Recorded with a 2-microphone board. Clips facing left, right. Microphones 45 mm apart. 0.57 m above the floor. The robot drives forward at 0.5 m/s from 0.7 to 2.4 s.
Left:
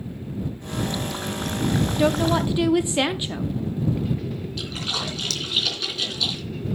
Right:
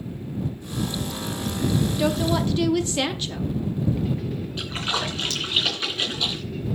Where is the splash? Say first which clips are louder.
Right 4 dB; 35° right (ahead or behind), 3 m.